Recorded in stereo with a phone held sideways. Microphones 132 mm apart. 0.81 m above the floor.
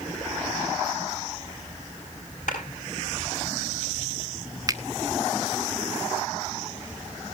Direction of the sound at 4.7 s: 25° right (ahead or behind).